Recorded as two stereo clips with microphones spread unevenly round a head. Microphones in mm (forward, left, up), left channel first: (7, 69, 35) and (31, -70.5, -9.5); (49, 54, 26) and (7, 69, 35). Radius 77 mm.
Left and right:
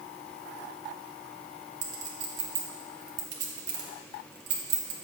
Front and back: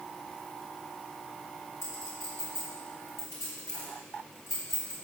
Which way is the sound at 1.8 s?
80° right.